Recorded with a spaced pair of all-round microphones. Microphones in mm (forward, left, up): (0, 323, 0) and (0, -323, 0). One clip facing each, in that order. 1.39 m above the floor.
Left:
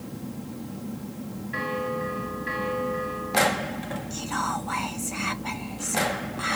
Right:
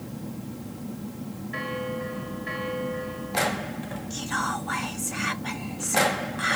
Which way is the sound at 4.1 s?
45° right (ahead or behind).